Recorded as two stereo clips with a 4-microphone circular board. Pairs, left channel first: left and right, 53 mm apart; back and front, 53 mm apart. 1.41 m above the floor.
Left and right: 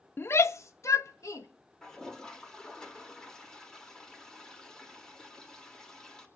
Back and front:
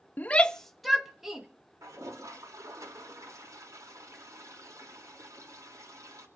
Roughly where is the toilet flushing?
Ahead.